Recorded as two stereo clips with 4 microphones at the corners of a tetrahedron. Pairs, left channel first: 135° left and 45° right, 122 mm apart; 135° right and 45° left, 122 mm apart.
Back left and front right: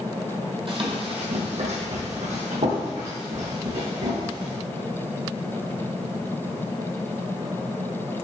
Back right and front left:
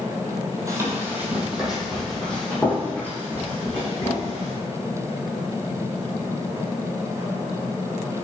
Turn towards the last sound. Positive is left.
turn(degrees=-70)